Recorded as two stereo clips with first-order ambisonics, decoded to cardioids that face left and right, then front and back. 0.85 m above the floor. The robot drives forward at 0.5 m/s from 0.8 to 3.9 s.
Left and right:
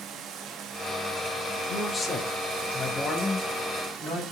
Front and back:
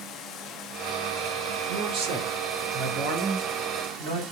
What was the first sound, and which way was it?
Running water, 45° right.